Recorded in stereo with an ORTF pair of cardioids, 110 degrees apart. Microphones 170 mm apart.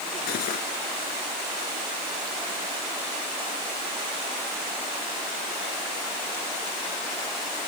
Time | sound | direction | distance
0.3 | cutlery clinking | 70° left | ?